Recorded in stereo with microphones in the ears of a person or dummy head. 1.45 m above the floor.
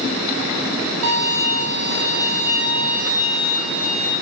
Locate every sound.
1.0 s a violin: 75° right (ahead or behind), 2 m